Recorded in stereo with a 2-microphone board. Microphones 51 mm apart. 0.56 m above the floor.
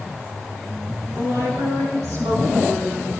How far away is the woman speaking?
About 6 m.